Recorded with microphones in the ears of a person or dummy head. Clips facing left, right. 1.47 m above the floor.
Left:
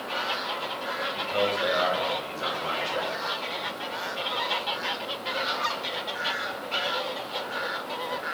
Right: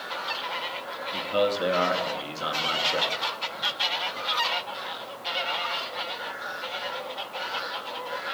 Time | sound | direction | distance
1.1 | a man speaking | 55° right (ahead or behind) | 2.5 m